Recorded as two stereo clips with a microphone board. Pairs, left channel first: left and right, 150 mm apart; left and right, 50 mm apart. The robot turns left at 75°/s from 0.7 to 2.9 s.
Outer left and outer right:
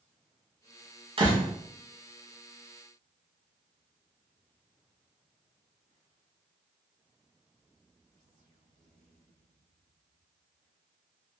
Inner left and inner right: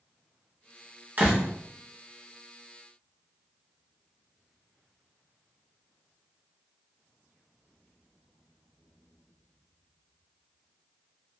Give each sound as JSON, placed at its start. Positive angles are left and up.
{"t": 1.2, "sound": "a door slam", "side_deg": -40, "distance_m": 1.0}